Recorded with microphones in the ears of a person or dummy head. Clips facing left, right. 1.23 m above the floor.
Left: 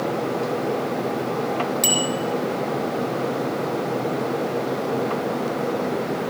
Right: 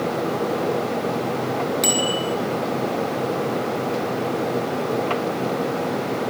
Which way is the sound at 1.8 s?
10° left (ahead or behind).